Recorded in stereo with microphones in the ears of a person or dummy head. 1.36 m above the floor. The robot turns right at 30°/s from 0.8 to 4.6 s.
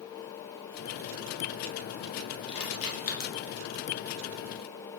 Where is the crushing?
25° left (ahead or behind), 0.9 m; by 3.3 s 50° left (ahead or behind), 0.9 m.